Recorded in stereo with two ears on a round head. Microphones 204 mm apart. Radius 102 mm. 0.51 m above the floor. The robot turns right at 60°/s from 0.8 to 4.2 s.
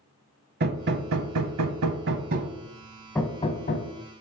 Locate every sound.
0.6 s hammering: 45° right (ahead or behind), 0.8 m; by 3.9 s 50° left (ahead or behind), 0.8 m